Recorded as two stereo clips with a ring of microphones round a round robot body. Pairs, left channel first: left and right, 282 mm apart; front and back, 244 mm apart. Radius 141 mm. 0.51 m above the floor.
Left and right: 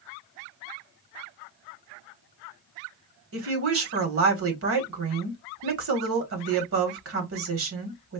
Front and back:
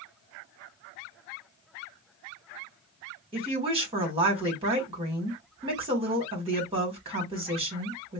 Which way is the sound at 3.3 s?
115° right.